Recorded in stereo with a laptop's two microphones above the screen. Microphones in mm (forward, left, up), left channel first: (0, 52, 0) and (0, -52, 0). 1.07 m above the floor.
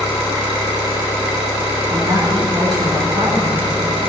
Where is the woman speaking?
40° right (ahead or behind), 3 m.